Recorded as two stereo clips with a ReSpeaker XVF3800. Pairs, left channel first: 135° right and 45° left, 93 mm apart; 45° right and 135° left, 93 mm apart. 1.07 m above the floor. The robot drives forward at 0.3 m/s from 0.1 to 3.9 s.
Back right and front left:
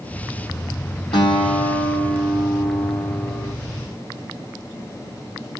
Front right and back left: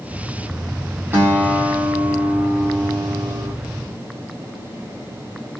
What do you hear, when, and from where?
1.1 s a guitar: 170° right, 4 m